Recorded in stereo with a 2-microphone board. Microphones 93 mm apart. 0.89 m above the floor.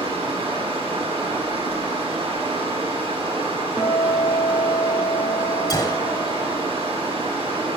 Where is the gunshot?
40° left (ahead or behind), 1.4 m.